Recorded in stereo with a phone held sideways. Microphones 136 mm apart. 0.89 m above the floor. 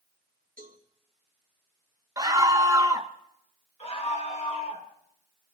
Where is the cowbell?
80° right, 2.5 m.